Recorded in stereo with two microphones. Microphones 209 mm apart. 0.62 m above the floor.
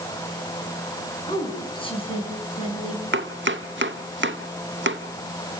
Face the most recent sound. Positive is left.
turn(degrees=-65)  # may be behind; listen again after turning